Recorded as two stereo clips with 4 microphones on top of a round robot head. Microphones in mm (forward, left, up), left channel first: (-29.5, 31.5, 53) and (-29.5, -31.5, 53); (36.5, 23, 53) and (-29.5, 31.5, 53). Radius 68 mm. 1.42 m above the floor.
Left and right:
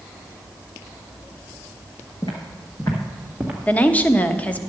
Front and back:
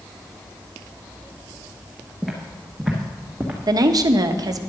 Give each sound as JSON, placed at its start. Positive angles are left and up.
{"t": 2.2, "sound": "footsteps", "azimuth_deg": 80, "distance_m": 1.9}
{"t": 3.7, "sound": "a woman speaking", "azimuth_deg": 155, "distance_m": 0.9}